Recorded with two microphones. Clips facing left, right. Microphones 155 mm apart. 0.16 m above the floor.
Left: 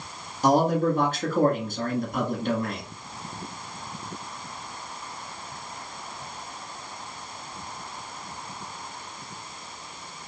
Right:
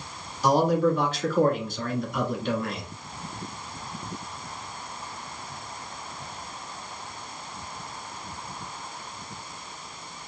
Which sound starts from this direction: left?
A man speaking, at 0.4 s.